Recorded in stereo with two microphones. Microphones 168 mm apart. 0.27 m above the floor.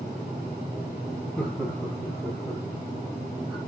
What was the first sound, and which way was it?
Laughter, 5° left (ahead or behind).